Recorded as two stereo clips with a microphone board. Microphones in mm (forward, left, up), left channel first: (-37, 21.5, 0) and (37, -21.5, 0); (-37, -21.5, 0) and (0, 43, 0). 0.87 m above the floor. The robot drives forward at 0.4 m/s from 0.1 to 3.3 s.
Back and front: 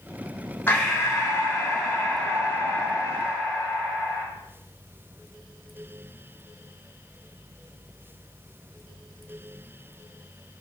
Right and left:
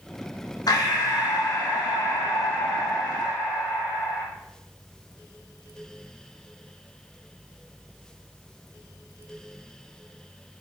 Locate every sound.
0.7 s breathing: 140° right, 0.9 m; by 4.2 s 160° right, 1.9 m